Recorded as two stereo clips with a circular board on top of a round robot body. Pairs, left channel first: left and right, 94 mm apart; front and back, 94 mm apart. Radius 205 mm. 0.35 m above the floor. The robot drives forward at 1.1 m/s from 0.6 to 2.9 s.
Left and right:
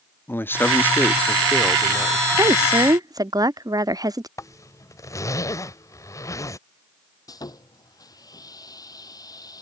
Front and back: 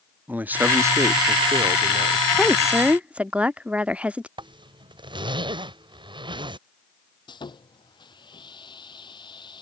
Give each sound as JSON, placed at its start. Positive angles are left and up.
{"t": 0.3, "sound": "a man speaking", "azimuth_deg": 130}
{"t": 2.4, "sound": "a woman speaking", "azimuth_deg": -80}
{"t": 4.4, "sound": "a zipper", "azimuth_deg": 145}
{"t": 7.3, "sound": "sawing", "azimuth_deg": 40}